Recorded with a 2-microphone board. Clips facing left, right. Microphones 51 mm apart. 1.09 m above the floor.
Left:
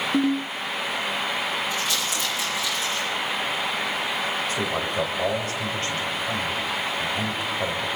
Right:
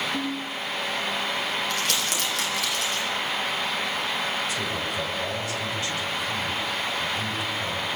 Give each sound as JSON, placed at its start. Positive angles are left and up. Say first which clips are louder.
{"t": 0.1, "sound": "a ringtone", "louder": "left 7 dB", "side_deg": 65, "distance_m": 1.3}
{"t": 1.7, "sound": "crumpling", "louder": "even", "side_deg": -80, "distance_m": 7.5}
{"t": 4.5, "sound": "a man speaking", "louder": "left 3 dB", "side_deg": 40, "distance_m": 5.5}